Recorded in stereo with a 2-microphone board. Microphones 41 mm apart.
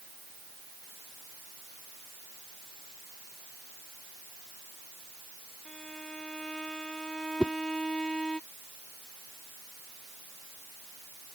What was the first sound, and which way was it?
A violin, 15° left (ahead or behind).